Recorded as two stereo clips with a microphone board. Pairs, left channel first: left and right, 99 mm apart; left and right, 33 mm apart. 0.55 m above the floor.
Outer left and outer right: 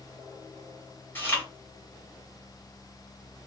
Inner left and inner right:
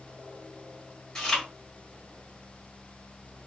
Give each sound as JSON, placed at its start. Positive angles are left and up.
{"t": 1.1, "sound": "chewing", "side_deg": 20, "distance_m": 2.5}